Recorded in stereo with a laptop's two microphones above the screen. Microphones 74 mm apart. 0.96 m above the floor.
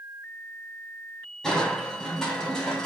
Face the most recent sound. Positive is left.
turn(degrees=10)  # may be behind; listen again after turning